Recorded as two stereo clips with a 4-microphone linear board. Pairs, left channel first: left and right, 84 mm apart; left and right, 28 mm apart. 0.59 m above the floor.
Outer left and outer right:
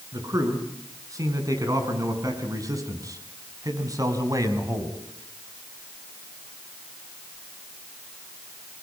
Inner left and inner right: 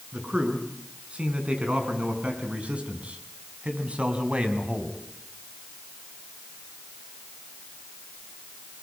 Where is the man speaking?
45° right (ahead or behind), 6.5 m.